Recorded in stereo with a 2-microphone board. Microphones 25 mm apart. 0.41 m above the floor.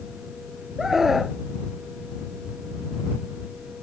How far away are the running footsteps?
I don't hear running footsteps.